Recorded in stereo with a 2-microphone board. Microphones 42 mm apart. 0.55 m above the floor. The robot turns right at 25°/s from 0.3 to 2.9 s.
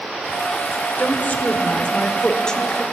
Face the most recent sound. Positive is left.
turn(degrees=170)